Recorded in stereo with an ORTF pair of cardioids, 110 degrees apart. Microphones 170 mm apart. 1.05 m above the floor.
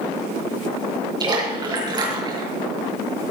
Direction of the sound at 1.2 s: 25° right.